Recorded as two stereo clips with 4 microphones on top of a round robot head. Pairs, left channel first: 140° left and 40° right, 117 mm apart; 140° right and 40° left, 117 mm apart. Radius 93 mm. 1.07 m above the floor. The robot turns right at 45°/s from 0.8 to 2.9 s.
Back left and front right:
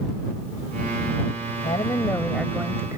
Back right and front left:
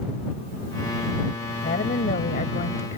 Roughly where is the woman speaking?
Behind.